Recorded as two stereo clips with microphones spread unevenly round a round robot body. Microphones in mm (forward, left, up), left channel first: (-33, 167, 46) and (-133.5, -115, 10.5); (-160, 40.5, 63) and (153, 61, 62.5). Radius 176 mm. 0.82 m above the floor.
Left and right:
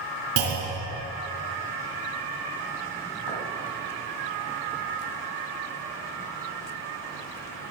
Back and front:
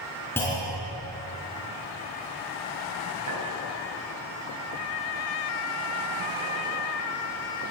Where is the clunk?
90° right, 3 m.